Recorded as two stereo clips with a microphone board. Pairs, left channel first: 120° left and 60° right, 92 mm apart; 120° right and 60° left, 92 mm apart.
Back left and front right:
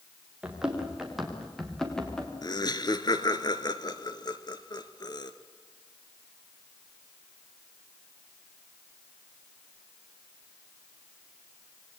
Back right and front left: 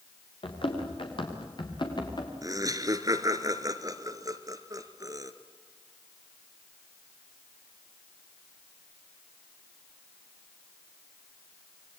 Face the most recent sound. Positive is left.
turn(degrees=95)